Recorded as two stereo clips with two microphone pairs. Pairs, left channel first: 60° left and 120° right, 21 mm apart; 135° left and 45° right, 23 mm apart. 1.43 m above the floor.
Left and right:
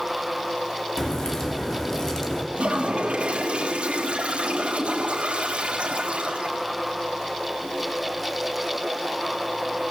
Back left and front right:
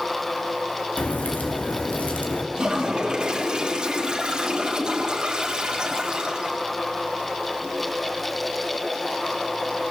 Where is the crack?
125° left, 3 m.